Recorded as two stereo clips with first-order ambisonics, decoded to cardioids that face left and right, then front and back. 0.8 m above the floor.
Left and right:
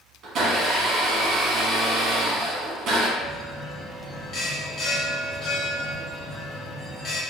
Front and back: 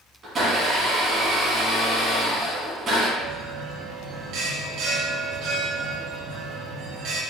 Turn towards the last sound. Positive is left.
turn(degrees=155)